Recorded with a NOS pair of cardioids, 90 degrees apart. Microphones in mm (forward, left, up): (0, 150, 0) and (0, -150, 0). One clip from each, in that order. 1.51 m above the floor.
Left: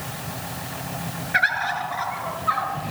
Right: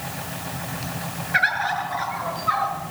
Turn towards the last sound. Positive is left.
turn(degrees=5)